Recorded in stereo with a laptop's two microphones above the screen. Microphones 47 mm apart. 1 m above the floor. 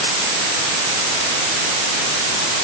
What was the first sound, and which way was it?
Only background noise.